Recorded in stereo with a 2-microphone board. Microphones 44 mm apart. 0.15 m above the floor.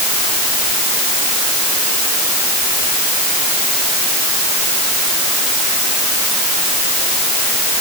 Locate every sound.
Only background noise.